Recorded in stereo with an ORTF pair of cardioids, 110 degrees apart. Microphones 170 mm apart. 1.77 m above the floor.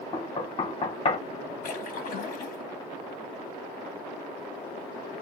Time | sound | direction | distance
0.1 | knocking | 35° left | 1.5 m
1.6 | a splash | 55° left | 1.1 m